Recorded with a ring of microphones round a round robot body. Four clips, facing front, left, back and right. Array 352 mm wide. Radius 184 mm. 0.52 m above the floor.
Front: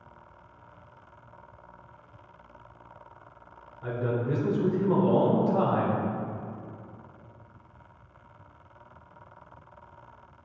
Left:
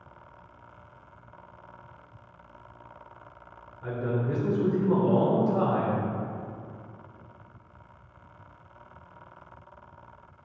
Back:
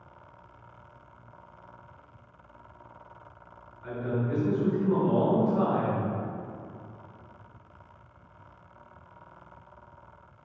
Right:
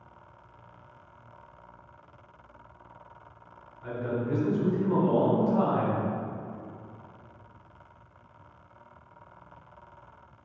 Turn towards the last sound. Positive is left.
turn(degrees=35)